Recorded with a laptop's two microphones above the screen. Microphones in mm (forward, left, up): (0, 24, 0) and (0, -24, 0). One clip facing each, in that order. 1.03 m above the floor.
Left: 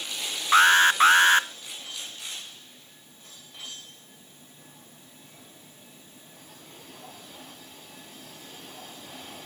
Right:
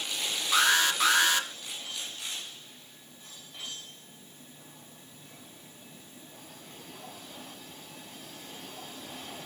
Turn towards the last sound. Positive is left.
turn(degrees=35)  # may be behind; listen again after turning